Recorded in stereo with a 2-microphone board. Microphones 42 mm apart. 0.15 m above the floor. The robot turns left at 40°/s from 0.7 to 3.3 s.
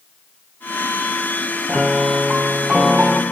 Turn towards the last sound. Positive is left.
turn(degrees=-55)